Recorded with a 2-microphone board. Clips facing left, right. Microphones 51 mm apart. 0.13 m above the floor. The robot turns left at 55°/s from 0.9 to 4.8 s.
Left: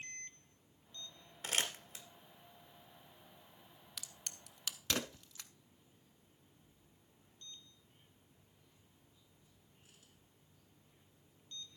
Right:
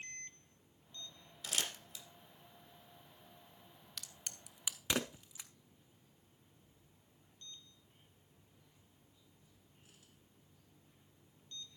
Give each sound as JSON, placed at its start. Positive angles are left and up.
{"t": 1.4, "sound": "crumpling", "side_deg": 45, "distance_m": 1.7}
{"t": 4.0, "sound": "a crack", "side_deg": 5, "distance_m": 0.7}